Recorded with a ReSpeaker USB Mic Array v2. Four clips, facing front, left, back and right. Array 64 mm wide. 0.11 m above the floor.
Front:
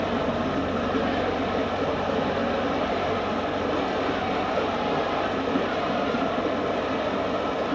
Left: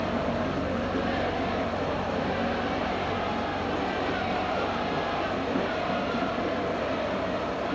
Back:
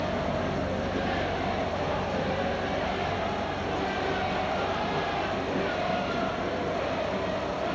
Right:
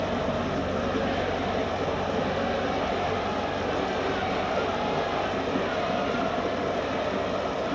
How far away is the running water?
About 0.7 m.